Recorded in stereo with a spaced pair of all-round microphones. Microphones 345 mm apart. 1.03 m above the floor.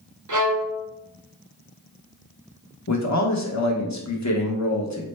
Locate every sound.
0.3 s a violin: 60° right (ahead or behind), 0.6 m
2.9 s a man speaking: 50° left (ahead or behind), 0.8 m